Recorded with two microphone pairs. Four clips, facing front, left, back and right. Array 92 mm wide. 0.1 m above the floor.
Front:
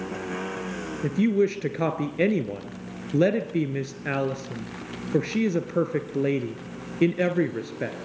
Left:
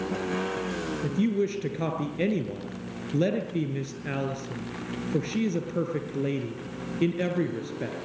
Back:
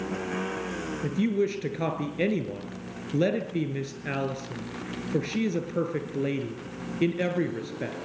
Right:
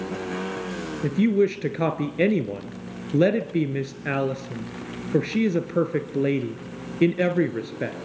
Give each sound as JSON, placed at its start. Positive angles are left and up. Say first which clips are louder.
{"t": 1.0, "sound": "a woman speaking", "louder": "right 7 dB, front 4 dB", "azimuth_deg": -55, "distance_m": 1.4}